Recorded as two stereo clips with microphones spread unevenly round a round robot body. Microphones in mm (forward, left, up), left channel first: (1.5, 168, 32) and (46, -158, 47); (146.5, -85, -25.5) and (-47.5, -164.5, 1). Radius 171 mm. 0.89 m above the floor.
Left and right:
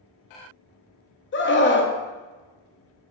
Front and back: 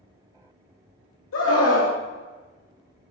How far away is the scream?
About 1.5 m.